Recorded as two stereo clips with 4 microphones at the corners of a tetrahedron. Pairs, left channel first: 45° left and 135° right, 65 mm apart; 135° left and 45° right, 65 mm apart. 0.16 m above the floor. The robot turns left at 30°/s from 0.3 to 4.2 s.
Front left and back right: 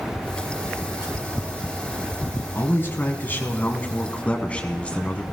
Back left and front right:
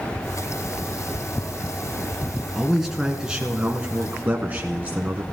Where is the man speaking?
45° left, 1.2 m; by 5.2 s 5° right, 1.2 m.